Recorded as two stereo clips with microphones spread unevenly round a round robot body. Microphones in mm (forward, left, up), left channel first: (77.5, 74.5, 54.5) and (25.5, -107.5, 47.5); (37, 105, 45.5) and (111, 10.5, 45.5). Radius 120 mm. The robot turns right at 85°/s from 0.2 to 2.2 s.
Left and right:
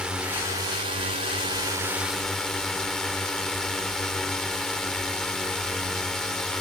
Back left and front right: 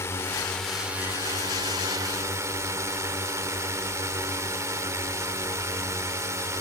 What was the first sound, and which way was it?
A drone, 175° left.